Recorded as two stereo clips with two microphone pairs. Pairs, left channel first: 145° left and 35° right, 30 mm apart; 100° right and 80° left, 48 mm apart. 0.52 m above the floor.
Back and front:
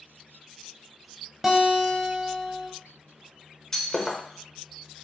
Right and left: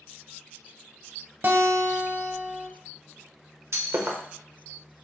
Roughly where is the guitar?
Ahead left.